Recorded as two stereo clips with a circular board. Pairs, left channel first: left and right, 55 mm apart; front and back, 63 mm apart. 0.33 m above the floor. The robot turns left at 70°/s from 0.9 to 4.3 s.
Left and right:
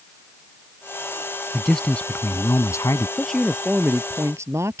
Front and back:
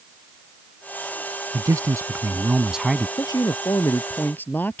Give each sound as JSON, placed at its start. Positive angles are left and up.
{"t": 1.5, "sound": "a man speaking", "azimuth_deg": -175}
{"t": 3.2, "sound": "a man speaking", "azimuth_deg": 20}